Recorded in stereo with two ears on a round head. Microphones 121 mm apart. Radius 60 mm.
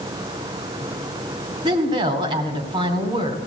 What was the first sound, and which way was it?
A woman speaking, 35° right (ahead or behind).